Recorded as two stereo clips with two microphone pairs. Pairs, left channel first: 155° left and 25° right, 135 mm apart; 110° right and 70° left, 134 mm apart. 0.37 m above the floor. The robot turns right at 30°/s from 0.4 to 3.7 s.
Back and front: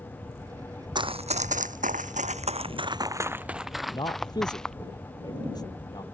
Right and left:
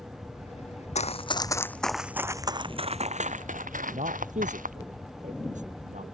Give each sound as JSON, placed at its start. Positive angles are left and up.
{"t": 0.9, "sound": "running footsteps", "azimuth_deg": -80}
{"t": 3.9, "sound": "a man speaking", "azimuth_deg": 95}